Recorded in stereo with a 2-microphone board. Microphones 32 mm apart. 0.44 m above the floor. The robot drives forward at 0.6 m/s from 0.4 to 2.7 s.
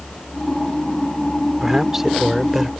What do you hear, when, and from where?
1.6 s a man speaking: 15° right (ahead or behind); by 2.7 s 10° right (ahead or behind)